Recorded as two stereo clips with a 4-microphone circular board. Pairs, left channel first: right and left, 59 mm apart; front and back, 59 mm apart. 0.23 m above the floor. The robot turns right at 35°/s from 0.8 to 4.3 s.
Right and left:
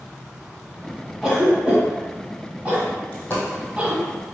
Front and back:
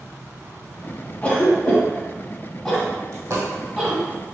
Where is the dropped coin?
160° right, 1.9 m; by 3.4 s 150° right, 1.9 m.